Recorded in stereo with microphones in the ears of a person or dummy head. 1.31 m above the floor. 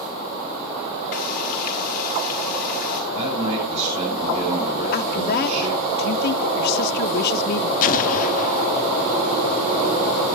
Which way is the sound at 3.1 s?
40° right (ahead or behind).